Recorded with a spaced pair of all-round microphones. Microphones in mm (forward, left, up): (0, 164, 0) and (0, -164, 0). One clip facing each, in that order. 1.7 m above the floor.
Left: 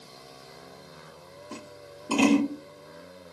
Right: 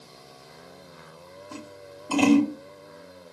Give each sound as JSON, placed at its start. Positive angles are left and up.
{"t": 1.5, "sound": "scissors", "side_deg": 35, "distance_m": 1.5}